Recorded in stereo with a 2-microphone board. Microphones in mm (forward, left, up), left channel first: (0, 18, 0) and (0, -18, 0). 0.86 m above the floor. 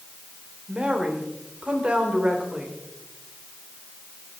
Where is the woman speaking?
30° right (ahead or behind), 3.5 m.